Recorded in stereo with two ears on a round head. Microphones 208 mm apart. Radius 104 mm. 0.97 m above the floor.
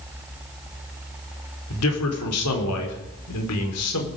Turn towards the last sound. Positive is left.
turn(degrees=70)  # may be behind; listen again after turning